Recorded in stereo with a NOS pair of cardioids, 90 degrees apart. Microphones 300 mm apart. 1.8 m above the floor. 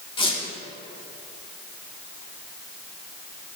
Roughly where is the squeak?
Ahead.